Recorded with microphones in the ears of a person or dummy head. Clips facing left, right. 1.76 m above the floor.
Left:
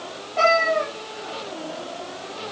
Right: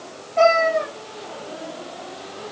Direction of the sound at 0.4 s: 10° right (ahead or behind).